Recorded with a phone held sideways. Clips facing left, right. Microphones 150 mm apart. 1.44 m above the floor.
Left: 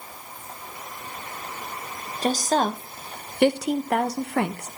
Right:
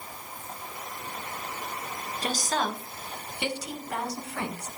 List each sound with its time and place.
2.2 s a woman speaking: 40° left (ahead or behind), 1.4 m; by 4.7 s 75° left (ahead or behind), 1.2 m